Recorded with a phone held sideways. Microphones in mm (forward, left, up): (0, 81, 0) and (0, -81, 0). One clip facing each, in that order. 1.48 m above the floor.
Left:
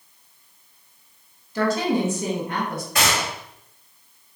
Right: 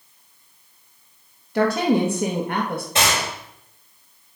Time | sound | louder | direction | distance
1.6 | a woman speaking | right 3 dB | 65° right (ahead or behind) | 1.9 m
3.0 | a gunshot | even | 25° right (ahead or behind) | 4 m